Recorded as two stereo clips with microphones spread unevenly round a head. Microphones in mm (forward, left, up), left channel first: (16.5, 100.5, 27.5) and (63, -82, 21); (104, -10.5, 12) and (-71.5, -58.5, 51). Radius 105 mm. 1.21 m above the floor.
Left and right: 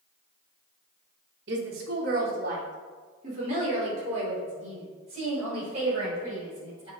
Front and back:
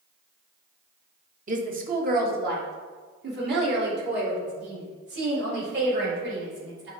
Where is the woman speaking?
115° right, 1.1 m; by 6.9 s 140° right, 5.5 m.